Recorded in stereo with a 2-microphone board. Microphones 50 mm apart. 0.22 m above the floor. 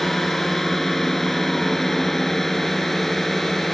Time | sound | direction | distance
0.0 | a drone | 5° left (ahead or behind) | ?